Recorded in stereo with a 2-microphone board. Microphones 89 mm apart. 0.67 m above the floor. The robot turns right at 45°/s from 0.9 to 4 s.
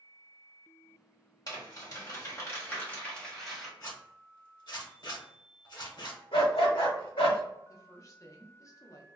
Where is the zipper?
45° left (ahead or behind), 0.8 m; by 6.2 s 50° left (ahead or behind), 0.8 m.